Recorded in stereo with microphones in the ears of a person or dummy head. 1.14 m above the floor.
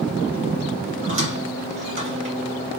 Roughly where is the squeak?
Right.